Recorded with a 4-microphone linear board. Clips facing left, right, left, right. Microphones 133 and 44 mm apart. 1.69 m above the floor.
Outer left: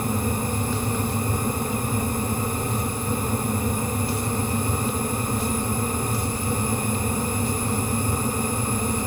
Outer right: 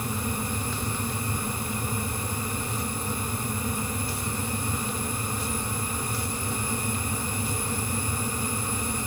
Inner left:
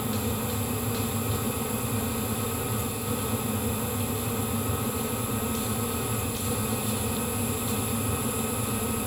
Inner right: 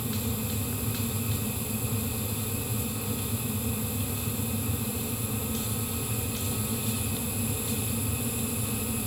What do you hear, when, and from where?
Only background noise.